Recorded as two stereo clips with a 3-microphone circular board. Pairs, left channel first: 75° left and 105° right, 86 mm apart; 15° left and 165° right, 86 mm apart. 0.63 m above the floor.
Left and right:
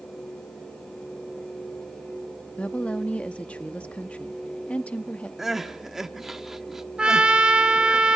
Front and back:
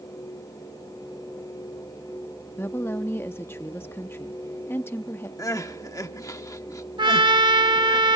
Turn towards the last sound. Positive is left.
turn(degrees=175)